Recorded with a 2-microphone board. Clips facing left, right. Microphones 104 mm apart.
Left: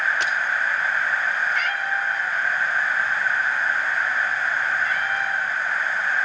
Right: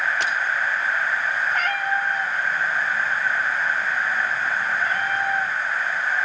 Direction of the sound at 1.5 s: 40° right (ahead or behind).